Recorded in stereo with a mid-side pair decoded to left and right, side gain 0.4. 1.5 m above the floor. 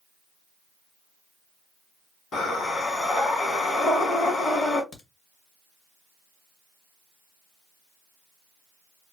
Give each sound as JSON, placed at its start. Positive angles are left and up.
{"t": 2.3, "sound": "breathing", "azimuth_deg": 65, "distance_m": 2.0}
{"t": 4.9, "sound": "a crack", "azimuth_deg": 70, "distance_m": 1.4}